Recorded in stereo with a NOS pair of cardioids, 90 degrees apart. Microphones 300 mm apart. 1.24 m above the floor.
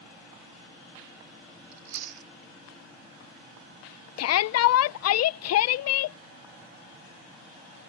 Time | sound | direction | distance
1.7 | chewing | 70° right | ?
4.2 | a shout | 55° left | ?